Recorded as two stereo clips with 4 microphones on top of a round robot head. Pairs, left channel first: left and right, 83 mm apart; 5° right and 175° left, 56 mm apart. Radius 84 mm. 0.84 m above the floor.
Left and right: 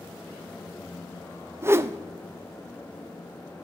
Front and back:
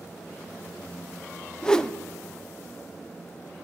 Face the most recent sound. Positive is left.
turn(degrees=-70)